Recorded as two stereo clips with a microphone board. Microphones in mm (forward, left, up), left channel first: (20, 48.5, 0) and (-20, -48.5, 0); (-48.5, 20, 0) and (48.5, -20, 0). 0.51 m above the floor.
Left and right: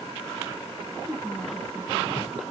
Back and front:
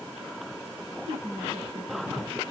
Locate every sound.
1.1 s a woman speaking: 20° right, 6.5 m